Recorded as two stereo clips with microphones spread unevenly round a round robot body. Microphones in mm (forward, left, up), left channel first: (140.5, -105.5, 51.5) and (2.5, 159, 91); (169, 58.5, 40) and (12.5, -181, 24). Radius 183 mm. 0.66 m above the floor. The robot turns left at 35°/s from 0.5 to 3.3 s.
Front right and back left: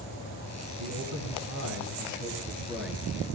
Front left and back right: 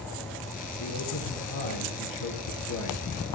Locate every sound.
0.8 s a man speaking: 105° left, 9.5 m; by 3.0 s 25° left, 9.5 m